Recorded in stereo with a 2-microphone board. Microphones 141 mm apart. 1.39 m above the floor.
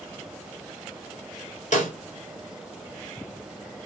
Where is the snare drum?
60° left (ahead or behind), 3 m.